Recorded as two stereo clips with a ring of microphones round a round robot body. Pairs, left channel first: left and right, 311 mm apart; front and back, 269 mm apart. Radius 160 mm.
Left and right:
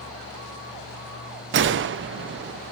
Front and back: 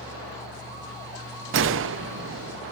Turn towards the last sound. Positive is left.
turn(degrees=-140)